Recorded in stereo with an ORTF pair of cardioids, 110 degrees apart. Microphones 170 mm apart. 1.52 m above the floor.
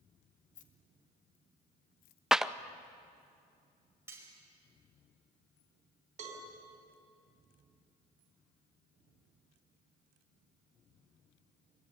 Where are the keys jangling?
55° left, 1.8 m; by 2.2 s 80° left, 0.9 m.